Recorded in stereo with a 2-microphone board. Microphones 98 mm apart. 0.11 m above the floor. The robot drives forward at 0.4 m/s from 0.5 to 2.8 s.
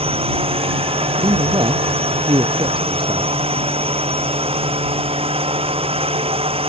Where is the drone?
80° right.